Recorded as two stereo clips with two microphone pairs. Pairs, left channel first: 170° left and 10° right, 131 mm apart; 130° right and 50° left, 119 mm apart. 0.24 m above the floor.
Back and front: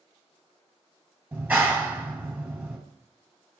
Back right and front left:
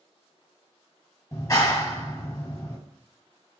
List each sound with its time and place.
1.3 s a clap: 80° right, 1.2 m